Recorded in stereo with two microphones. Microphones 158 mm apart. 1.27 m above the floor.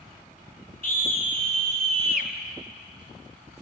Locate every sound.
0.8 s a scream: 65° left (ahead or behind), 4 m